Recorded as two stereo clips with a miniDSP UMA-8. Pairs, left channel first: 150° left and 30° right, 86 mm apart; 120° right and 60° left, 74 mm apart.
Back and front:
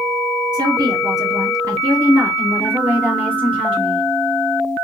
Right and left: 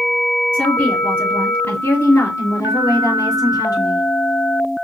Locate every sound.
0.5 s a woman speaking: 50° right, 3.5 m; by 4.0 s 105° right, 3.5 m